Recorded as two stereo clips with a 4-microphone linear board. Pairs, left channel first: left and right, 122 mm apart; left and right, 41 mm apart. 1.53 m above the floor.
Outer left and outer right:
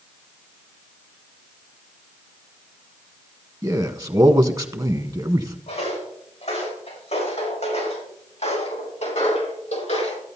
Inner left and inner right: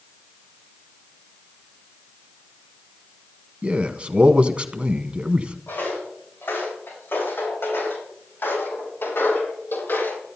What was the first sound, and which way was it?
A man speaking, 35° right (ahead or behind).